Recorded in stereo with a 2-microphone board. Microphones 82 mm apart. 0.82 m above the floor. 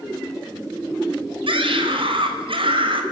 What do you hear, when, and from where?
1.5 s a scream: 80° right, 3.5 m; by 3.0 s 75° right (ahead or behind), 4 m